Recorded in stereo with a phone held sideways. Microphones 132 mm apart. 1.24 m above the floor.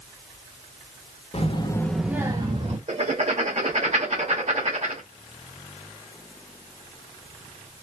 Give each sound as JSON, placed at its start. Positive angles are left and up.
{"t": 1.3, "sound": "a child speaking", "side_deg": 50, "distance_m": 0.9}
{"t": 2.9, "sound": "writing", "side_deg": -55, "distance_m": 1.0}